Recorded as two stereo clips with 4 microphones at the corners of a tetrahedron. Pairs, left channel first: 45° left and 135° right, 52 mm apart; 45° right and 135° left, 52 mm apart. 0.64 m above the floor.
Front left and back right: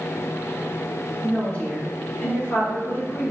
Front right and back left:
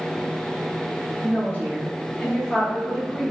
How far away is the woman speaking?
About 1.6 m.